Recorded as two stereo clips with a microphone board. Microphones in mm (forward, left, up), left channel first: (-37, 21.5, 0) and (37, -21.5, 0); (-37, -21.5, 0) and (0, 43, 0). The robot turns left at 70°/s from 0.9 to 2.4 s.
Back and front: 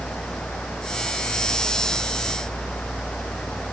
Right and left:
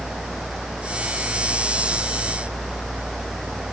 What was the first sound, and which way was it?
Only background noise.